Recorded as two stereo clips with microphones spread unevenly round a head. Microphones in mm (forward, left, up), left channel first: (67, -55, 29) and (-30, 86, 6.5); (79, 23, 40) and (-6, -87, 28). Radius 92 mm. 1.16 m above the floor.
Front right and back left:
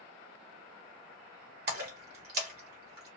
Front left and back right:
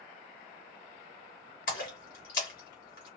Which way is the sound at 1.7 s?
95° left.